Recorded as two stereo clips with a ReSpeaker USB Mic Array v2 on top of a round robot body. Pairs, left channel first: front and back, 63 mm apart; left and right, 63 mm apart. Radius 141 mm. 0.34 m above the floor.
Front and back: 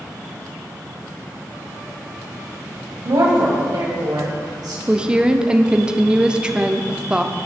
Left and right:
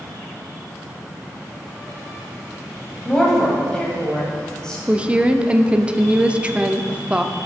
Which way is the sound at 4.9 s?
130° right.